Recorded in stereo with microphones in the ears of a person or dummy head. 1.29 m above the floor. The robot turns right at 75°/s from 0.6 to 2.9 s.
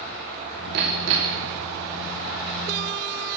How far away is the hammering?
About 2.5 m.